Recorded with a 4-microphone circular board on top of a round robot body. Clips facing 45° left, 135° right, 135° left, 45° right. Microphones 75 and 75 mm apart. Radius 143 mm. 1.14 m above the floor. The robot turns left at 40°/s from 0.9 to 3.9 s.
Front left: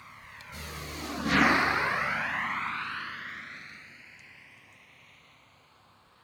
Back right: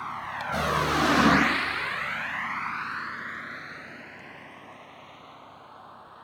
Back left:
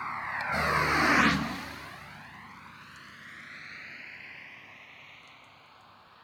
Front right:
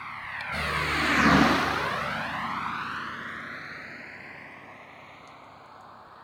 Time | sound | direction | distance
0.0 | a vehicle | 160° right | ?